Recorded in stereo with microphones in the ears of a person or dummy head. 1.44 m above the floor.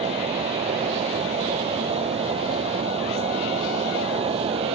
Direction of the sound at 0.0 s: 30° right (ahead or behind).